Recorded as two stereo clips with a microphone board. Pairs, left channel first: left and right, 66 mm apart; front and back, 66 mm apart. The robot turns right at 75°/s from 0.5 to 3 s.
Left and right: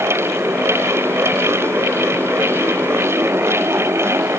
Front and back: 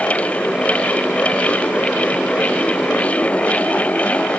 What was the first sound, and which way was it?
Only background noise.